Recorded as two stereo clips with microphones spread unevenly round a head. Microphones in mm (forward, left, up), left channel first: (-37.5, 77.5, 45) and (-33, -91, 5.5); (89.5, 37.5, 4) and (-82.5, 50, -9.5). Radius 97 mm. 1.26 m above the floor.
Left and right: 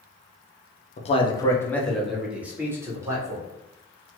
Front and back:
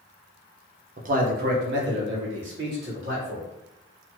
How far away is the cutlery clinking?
I don't hear cutlery clinking.